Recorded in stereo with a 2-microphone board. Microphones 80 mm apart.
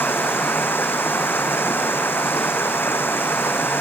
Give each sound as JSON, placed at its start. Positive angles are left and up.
{"t": 0.0, "sound": "running water", "side_deg": 30}